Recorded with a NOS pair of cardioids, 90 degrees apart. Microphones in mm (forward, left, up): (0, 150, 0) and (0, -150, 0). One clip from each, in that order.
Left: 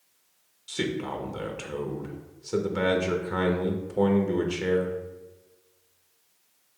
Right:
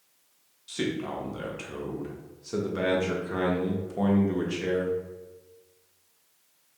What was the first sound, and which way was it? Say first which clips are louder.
A man speaking: left 1 dB; 15° left.